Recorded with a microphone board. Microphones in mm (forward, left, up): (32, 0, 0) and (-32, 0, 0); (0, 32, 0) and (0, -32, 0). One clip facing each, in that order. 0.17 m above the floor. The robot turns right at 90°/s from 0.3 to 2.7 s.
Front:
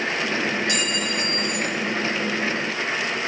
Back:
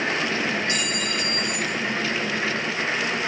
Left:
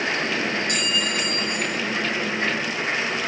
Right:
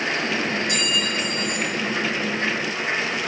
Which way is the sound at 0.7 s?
125° left.